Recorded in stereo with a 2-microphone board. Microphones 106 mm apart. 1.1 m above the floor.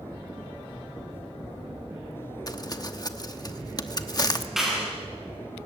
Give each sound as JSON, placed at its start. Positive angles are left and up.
{"t": 2.5, "sound": "crumpling", "side_deg": 35, "distance_m": 1.0}
{"t": 4.6, "sound": "a clap", "side_deg": -5, "distance_m": 8.5}